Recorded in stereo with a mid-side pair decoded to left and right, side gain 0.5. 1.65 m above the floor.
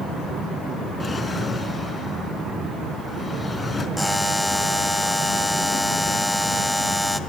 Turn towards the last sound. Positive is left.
turn(degrees=5)